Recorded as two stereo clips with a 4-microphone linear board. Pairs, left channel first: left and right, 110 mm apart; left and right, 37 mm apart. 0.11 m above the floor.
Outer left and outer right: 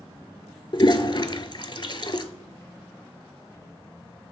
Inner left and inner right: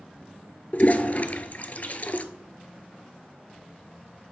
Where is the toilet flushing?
50° left (ahead or behind), 0.5 m.